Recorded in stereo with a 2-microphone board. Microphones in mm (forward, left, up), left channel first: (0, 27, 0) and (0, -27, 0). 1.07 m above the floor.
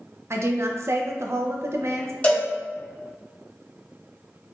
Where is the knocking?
No knocking in this recording.